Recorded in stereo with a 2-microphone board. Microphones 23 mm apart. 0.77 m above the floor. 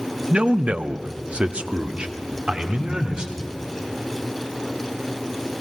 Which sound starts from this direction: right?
A man speaking, at 0.3 s.